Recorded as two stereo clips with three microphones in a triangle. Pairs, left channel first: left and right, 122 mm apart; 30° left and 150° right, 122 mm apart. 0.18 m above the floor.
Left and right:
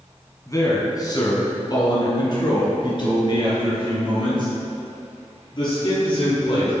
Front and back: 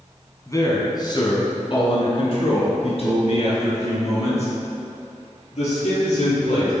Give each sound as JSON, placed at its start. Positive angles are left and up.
{"t": 0.5, "sound": "a man speaking", "azimuth_deg": 60, "distance_m": 1.6}